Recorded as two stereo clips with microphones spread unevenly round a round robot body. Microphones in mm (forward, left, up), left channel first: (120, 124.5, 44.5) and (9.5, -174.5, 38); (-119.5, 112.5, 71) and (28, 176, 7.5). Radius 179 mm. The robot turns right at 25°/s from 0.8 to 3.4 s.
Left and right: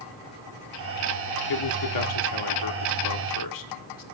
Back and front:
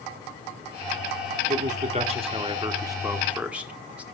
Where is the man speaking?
50° left, 2 m; by 4.0 s 100° left, 2 m.